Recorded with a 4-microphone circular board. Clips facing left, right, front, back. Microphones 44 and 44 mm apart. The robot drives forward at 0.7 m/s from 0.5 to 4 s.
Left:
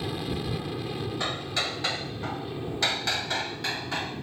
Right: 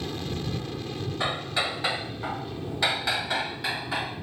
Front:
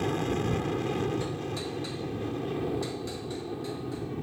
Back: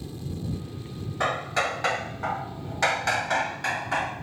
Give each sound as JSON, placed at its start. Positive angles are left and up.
{"t": 0.0, "sound": "an aircraft", "azimuth_deg": 15}
{"t": 1.2, "sound": "hammering", "azimuth_deg": -165}